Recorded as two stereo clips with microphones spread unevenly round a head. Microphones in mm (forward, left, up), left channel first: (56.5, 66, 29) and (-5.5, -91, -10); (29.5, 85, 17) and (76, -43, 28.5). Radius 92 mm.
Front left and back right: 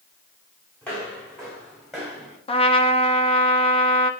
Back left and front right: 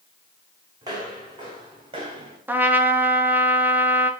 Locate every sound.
0.8 s footsteps: 10° right, 5.5 m; by 2.4 s 20° right, 5.5 m
2.5 s a trumpet: 10° left, 1.4 m